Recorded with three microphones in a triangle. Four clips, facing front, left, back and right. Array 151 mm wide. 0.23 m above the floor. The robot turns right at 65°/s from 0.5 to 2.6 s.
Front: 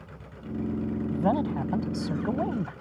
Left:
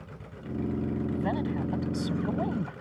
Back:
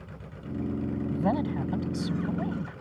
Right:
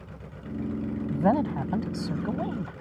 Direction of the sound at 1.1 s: 85° right.